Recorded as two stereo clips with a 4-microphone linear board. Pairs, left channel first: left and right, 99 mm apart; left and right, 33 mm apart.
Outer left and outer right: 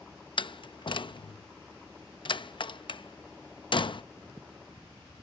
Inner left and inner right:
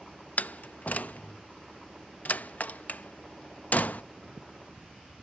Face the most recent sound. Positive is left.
turn(degrees=55)  # may be behind; listen again after turning